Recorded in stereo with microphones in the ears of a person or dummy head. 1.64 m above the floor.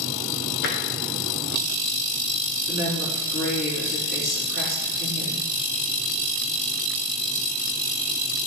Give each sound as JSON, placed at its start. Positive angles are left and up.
{"t": 0.6, "sound": "tapping", "side_deg": 55, "distance_m": 1.0}
{"t": 2.7, "sound": "a woman speaking", "side_deg": 50, "distance_m": 4.0}